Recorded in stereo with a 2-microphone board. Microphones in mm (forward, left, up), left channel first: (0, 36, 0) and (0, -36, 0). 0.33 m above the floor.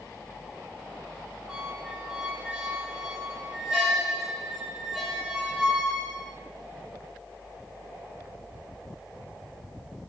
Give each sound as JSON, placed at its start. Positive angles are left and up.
{"t": 1.5, "sound": "a squeak", "side_deg": -5, "distance_m": 2.5}